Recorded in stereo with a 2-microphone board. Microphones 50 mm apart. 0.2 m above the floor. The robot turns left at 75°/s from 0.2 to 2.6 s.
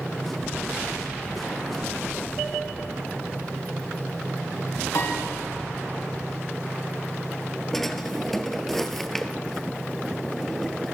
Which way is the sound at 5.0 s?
90° left.